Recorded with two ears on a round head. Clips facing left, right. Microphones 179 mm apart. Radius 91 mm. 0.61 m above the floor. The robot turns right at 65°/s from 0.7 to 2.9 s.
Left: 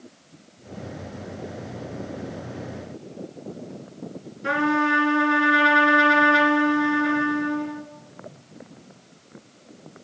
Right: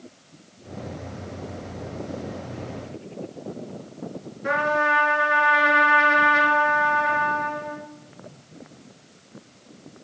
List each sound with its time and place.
4.4 s a trumpet: 50° left (ahead or behind), 1.3 m